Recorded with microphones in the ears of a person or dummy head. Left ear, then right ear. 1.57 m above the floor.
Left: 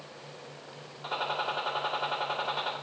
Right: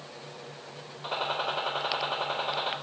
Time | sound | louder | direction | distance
1.0 | a gunshot | right 1 dB | 5° left (ahead or behind) | 1.9 m